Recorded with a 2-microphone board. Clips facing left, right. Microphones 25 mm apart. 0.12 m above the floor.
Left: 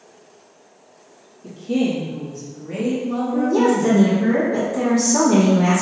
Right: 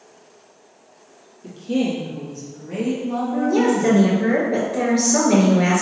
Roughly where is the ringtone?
No ringtone in this recording.